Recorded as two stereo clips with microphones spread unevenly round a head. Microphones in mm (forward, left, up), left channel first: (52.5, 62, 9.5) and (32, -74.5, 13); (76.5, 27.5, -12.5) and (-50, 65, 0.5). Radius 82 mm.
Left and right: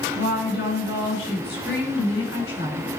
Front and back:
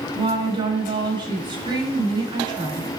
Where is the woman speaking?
110° left, 6.5 m.